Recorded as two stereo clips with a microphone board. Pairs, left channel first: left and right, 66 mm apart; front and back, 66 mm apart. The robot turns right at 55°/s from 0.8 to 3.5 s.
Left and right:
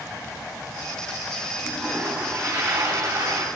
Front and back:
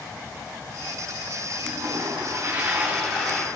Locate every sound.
1.6 s a toilet flushing: 170° right, 2.5 m; by 3.5 s 70° right, 2.5 m